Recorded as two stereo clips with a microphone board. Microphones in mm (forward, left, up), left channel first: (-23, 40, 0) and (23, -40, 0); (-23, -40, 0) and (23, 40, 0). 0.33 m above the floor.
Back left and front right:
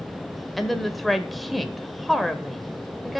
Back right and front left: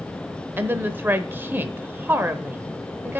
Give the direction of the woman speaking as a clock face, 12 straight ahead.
11 o'clock.